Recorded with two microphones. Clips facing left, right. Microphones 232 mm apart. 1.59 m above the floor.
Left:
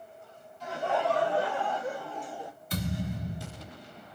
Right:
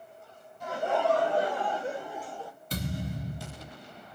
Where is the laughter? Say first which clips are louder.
Right 2 dB; 50° right (ahead or behind), 2 m; by 2.5 s 25° left (ahead or behind), 0.6 m.